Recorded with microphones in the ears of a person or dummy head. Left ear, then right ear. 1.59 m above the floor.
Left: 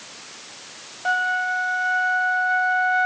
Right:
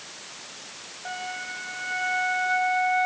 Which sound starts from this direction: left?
A flute, at 1.1 s.